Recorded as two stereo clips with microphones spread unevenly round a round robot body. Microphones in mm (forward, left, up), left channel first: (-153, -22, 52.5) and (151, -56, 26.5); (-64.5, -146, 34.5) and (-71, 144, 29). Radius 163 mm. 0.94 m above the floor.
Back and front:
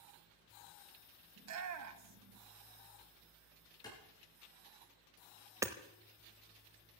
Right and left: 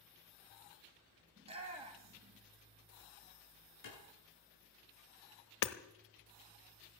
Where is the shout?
20° left, 1.8 m.